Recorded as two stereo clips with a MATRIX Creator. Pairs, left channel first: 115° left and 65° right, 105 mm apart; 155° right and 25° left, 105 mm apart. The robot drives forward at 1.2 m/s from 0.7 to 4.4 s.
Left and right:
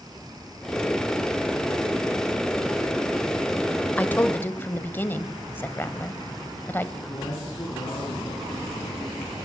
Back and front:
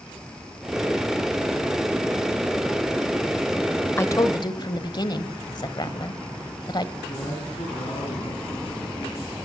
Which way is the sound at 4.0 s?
170° left.